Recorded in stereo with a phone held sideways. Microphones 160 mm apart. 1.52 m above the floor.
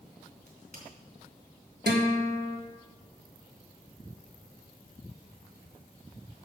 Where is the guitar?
80° right, 1.7 m.